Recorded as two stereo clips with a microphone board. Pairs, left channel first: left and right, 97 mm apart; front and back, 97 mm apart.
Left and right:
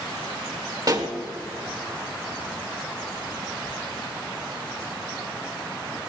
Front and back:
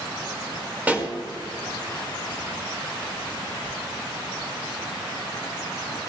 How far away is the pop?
About 1.8 m.